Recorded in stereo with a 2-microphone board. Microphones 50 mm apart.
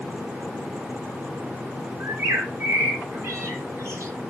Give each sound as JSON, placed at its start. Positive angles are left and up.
{"t": 2.0, "sound": "a bird", "side_deg": -65, "distance_m": 3.0}